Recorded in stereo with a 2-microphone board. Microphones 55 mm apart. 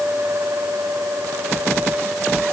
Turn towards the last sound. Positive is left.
No sound to turn to.